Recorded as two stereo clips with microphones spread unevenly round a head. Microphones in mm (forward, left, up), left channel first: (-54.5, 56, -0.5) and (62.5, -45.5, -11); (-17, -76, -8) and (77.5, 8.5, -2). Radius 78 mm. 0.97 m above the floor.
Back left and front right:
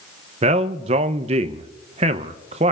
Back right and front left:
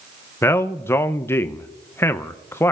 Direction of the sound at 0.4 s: 75° right.